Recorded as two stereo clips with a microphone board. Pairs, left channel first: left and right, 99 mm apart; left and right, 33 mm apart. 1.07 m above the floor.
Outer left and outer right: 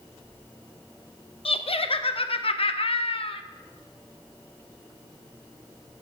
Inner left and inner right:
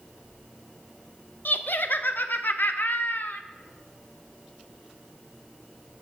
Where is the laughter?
70° left (ahead or behind), 0.5 m.